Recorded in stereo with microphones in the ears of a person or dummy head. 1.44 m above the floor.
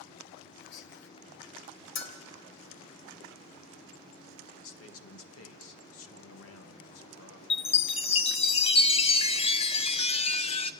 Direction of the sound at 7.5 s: 25° left (ahead or behind).